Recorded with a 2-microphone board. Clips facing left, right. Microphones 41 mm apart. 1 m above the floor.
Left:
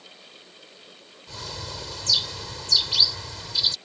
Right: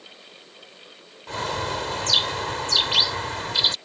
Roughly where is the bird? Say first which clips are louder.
Right 11 dB; right.